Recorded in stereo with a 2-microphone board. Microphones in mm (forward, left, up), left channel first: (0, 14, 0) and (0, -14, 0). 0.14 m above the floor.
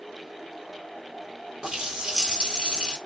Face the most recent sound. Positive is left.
turn(degrees=-25)  # may be behind; listen again after turning